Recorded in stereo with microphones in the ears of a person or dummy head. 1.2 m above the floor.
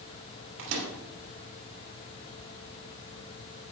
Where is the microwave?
70° right (ahead or behind), 3 m.